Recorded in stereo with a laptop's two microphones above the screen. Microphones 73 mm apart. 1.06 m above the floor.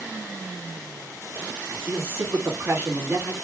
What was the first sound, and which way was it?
A man speaking, 30° right (ahead or behind).